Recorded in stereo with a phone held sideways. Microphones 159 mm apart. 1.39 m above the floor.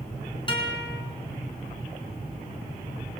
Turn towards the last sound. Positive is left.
turn(degrees=30)  # may be behind; listen again after turning